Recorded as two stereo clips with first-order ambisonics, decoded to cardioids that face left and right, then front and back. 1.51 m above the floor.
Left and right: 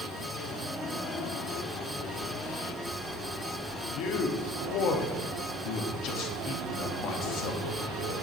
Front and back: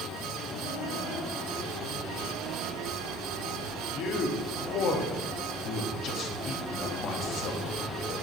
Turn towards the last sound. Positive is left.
turn(degrees=50)